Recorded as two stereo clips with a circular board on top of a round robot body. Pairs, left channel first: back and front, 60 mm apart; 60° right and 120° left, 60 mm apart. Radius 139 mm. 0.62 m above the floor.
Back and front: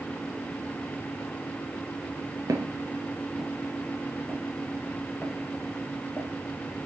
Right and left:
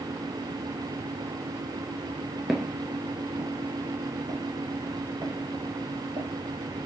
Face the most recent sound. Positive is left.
turn(degrees=110)